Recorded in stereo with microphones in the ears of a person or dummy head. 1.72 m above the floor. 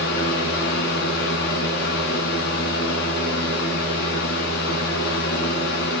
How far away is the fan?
About 5 m.